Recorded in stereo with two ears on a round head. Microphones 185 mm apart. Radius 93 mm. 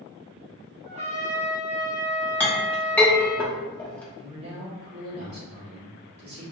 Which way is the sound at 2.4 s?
5° left (ahead or behind).